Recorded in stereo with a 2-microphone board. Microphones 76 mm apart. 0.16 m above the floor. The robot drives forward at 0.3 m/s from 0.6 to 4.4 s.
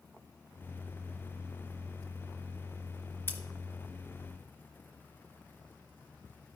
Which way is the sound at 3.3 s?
25° left (ahead or behind).